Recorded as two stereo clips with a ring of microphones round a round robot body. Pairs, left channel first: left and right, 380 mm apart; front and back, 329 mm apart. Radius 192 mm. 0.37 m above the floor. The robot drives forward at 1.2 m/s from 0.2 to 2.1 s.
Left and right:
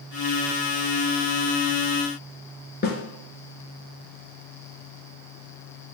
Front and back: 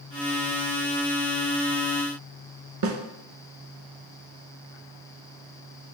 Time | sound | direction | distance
2.8 | a snare drum | 155° left | 0.9 m